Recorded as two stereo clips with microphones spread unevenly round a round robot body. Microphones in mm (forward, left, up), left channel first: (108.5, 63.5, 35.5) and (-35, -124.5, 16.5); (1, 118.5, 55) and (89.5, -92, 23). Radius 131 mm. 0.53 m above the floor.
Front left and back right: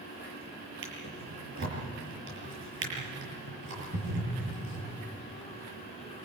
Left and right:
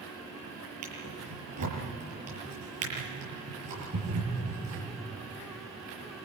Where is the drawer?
90° right, 7 m.